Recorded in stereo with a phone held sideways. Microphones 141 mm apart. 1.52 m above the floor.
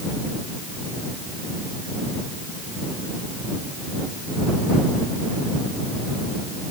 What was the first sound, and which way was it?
Only background noise.